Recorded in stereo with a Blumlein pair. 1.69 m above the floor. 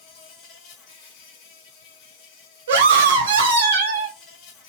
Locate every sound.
0.0 s an insect: 40° left, 1.3 m
2.7 s a scream: 65° right, 1.4 m